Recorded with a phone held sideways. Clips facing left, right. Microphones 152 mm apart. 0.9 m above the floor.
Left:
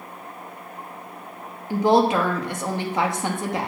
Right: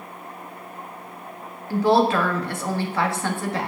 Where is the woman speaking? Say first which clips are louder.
Even; 20° left (ahead or behind), 1.2 m.